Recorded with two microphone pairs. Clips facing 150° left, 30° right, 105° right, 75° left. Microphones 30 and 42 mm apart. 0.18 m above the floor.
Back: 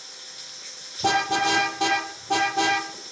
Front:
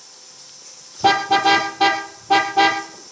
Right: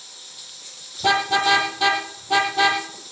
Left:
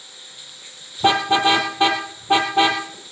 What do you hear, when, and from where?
0.0 s running water: 130° left, 1.8 m
1.0 s a car horn: 25° left, 2.5 m